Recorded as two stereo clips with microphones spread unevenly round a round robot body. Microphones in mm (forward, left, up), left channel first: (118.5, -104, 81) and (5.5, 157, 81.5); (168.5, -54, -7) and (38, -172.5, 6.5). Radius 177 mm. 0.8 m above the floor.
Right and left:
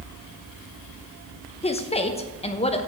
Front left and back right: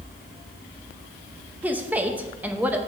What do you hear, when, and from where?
1.6 s a woman speaking: 60° right, 0.9 m